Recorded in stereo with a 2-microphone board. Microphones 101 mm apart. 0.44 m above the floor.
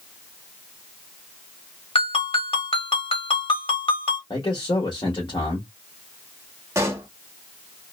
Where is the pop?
30° right (ahead or behind), 0.7 m.